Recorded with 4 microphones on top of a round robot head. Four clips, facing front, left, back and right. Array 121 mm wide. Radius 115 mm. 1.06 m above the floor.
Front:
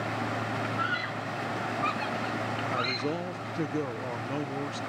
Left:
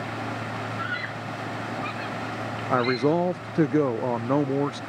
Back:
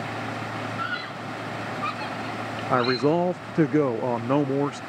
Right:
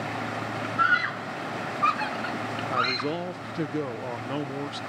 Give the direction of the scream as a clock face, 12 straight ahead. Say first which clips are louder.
Right 7 dB, even; 3 o'clock.